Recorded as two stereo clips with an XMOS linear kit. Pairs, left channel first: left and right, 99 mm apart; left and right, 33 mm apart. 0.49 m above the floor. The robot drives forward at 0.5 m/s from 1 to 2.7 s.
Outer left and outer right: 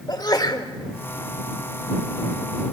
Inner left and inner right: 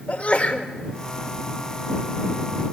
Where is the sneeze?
45° left (ahead or behind), 2.0 m.